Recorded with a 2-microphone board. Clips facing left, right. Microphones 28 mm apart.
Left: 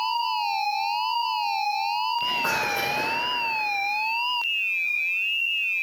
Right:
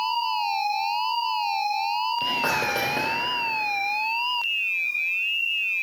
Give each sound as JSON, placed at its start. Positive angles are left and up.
{"t": 2.2, "sound": "whispering", "side_deg": -60, "distance_m": 3.5}